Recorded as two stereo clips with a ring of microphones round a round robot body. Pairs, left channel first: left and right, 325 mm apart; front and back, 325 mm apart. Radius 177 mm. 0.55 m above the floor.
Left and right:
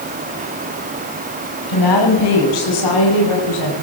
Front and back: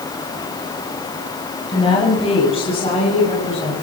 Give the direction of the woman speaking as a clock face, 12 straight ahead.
10 o'clock.